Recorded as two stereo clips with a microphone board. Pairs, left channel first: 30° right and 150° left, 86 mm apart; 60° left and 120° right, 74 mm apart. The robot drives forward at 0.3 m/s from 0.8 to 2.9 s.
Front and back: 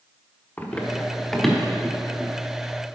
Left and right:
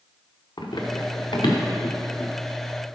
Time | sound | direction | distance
0.6 | running footsteps | 40° left | 1.7 m